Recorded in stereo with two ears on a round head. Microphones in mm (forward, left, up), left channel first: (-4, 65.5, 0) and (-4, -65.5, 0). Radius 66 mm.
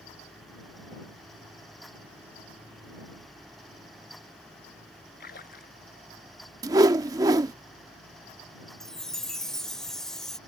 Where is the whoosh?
25° right (ahead or behind).